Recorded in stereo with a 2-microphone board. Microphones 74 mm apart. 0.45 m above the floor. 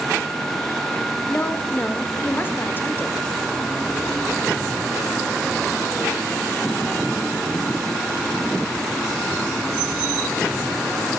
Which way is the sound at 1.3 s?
25° left (ahead or behind).